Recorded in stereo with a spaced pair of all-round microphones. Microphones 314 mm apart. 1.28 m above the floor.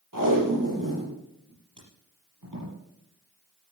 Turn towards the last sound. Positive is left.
turn(degrees=-70)  # may be behind; listen again after turning